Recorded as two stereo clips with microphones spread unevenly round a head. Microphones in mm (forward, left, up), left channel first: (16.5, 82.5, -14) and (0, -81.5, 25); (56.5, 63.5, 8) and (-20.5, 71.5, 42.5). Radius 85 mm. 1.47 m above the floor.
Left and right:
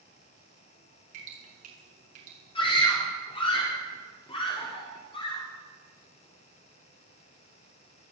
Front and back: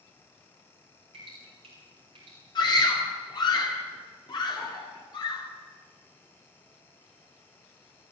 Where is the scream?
20° left, 4 m.